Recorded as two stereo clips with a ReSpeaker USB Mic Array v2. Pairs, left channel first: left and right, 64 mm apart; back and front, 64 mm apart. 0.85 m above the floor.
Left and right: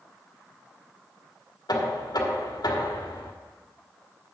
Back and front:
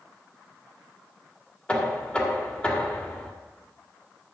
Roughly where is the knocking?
Left.